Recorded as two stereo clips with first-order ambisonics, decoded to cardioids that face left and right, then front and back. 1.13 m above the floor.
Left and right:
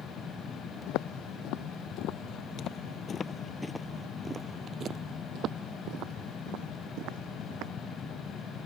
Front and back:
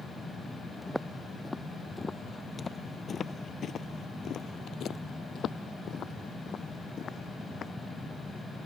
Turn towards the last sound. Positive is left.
turn(degrees=-65)